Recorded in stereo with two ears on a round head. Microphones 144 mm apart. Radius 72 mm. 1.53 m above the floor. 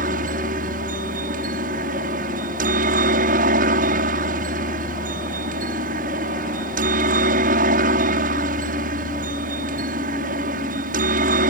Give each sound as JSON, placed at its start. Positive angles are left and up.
{"t": 0.0, "sound": "a helicopter", "side_deg": -55}